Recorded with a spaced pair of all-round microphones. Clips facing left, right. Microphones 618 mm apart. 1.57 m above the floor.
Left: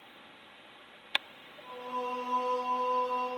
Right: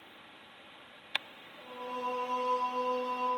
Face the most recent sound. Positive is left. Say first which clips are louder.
# left 1 dB
turn(degrees=-65)  # may be behind; listen again after turning